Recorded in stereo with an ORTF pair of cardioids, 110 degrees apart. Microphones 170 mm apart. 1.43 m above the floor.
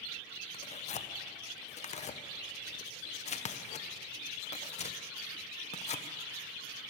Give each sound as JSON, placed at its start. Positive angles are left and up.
{"t": 0.5, "sound": "tearing paper", "azimuth_deg": 40, "distance_m": 0.9}